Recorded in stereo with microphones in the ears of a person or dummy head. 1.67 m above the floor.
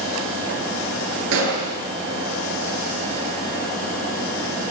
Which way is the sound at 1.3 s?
70° right (ahead or behind).